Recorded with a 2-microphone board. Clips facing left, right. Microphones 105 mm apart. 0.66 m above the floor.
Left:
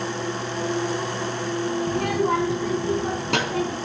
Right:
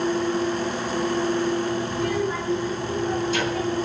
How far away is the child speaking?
About 2.5 m.